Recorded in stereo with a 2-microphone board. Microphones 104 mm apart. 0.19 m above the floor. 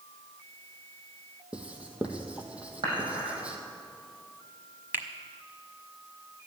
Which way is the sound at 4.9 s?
20° right (ahead or behind).